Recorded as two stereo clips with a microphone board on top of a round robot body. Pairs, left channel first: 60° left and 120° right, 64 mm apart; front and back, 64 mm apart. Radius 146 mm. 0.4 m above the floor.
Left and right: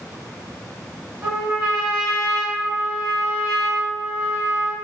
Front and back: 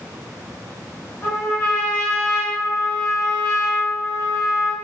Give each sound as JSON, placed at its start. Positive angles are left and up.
{"t": 1.2, "sound": "a trumpet", "azimuth_deg": -60, "distance_m": 1.0}